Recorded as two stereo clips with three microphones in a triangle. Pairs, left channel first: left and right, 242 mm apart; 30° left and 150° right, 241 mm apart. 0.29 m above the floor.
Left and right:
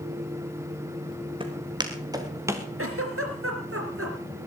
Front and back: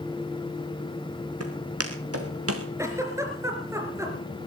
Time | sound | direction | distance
1.4 | footsteps | 160° right | 3 m
2.8 | a giggle | 70° right | 3 m